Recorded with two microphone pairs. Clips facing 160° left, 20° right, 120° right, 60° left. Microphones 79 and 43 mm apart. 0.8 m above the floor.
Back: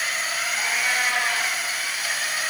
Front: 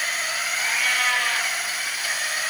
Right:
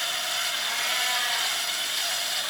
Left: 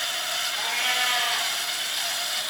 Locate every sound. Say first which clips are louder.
0.6 s a cat meowing: even, left 6 dB; 90° left, 7.5 m